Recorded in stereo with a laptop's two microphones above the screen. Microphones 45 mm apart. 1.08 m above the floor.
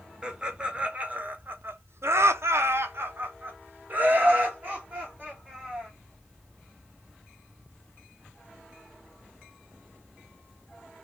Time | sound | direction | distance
0.2 | laughter | 15° right (ahead or behind) | 1.2 m